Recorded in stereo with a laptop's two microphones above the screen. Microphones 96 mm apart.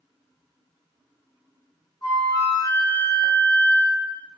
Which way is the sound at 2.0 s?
30° left (ahead or behind).